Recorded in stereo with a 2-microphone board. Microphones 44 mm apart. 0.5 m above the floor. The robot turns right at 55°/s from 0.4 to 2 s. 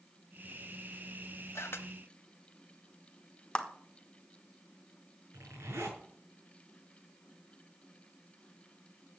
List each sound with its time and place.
1.6 s a camera shutter: 80° left, 0.9 m; by 1.9 s 60° left (ahead or behind), 0.9 m
3.5 s a clap: 25° left (ahead or behind), 1.2 m
5.3 s a zipper: 80° right, 5 m